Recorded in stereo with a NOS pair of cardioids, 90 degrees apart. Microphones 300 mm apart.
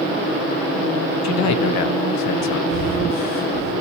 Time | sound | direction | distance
1.2 | a man speaking | 70° left | 0.8 m
2.7 | breathing | 50° left | 5 m